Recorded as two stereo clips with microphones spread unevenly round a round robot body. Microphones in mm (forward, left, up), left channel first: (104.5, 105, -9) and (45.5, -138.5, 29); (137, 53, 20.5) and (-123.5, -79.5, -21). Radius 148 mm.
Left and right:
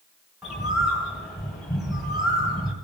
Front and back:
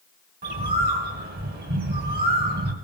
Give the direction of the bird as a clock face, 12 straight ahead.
7 o'clock.